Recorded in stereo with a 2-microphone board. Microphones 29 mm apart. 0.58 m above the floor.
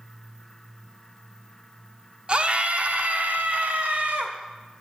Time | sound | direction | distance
2.3 | a scream | 35° right (ahead or behind) | 0.9 m